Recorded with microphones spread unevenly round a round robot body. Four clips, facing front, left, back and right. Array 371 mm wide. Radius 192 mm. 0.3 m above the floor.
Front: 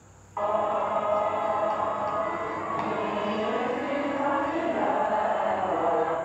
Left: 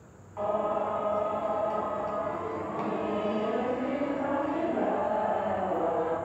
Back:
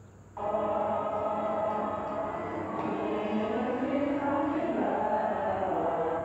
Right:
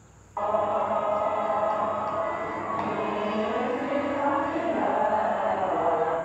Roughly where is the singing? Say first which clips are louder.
Right 4 dB, front 4 dB; ahead right.